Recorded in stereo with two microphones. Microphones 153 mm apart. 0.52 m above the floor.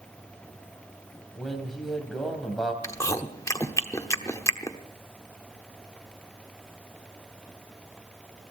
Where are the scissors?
No scissors in this recording.